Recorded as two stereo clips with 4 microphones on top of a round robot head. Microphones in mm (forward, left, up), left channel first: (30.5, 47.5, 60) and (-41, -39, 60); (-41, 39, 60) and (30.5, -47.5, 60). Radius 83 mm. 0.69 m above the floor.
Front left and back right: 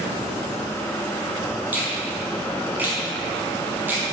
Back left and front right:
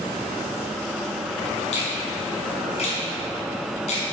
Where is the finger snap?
155° left, 5.5 m.